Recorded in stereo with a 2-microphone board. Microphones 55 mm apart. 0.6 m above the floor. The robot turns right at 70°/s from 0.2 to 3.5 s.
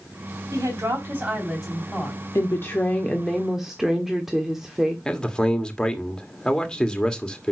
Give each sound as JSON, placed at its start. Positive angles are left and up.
{"t": 0.5, "sound": "a woman speaking", "azimuth_deg": -80, "distance_m": 3.5}
{"t": 2.4, "sound": "a woman speaking", "azimuth_deg": 105, "distance_m": 1.3}
{"t": 5.0, "sound": "a man speaking", "side_deg": 15, "distance_m": 1.4}